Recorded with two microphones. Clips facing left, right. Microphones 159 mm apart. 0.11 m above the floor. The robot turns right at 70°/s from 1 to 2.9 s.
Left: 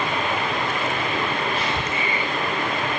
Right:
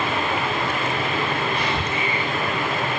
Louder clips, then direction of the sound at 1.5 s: Right 1 dB; 15° right.